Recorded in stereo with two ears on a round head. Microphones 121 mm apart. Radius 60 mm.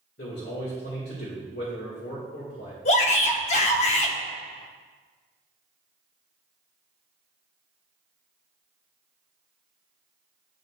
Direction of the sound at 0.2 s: 80° left.